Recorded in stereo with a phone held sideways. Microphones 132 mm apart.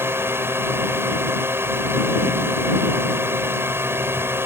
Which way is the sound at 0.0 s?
20° right (ahead or behind).